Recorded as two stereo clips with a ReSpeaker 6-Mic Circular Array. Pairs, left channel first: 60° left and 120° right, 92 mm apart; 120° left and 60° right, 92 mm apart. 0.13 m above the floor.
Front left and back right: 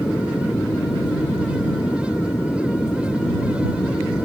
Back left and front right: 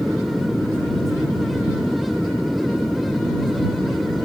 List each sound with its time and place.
0.0 s an aircraft: 25° left